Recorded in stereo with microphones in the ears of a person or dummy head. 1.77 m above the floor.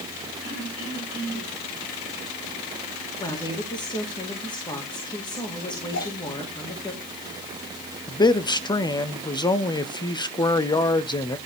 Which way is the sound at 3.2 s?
20° left (ahead or behind).